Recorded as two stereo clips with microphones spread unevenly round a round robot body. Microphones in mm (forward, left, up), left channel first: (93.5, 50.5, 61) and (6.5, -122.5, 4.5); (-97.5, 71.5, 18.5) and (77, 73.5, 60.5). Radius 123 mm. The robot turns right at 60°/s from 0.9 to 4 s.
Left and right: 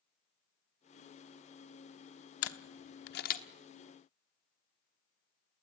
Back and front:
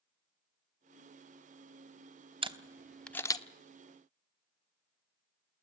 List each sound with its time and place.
2.4 s a camera shutter: 65° left, 1.2 m; by 3.4 s 125° left, 1.2 m